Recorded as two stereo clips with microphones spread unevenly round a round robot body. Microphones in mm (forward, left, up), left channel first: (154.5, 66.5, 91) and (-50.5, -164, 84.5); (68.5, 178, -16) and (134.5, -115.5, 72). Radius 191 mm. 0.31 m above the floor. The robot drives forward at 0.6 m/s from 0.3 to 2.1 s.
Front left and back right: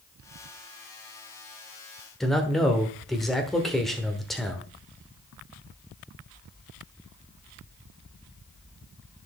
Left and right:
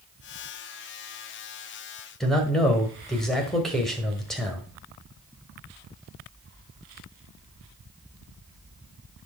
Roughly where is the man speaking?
Behind left.